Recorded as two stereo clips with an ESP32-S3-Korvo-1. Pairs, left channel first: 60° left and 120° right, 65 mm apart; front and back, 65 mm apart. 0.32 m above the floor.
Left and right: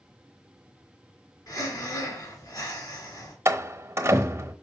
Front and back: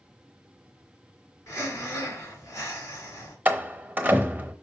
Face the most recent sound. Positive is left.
turn(degrees=-130)